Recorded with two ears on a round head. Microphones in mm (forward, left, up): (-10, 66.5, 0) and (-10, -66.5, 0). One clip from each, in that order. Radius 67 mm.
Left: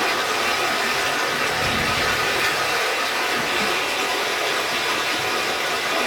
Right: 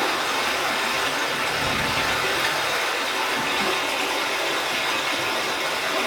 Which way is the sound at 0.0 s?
5° right (ahead or behind).